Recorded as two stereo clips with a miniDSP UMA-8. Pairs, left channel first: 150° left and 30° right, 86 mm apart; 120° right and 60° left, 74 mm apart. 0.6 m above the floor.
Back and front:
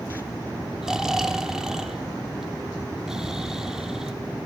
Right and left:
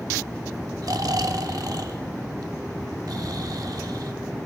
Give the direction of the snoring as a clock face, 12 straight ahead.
10 o'clock.